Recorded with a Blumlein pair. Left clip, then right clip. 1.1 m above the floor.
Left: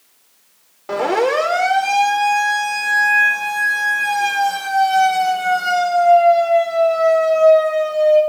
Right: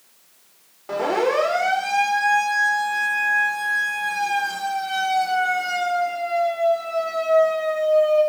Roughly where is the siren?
Ahead.